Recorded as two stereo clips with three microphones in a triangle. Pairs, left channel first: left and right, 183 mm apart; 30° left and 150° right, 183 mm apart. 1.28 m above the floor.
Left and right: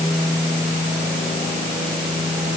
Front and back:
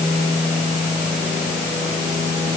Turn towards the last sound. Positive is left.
No sound to turn to.